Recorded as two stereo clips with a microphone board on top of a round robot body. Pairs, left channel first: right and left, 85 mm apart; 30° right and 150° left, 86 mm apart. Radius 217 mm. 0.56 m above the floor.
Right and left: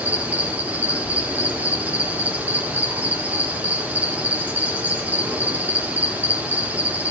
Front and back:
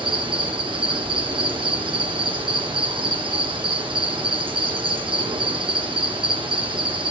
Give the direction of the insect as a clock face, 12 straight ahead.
7 o'clock.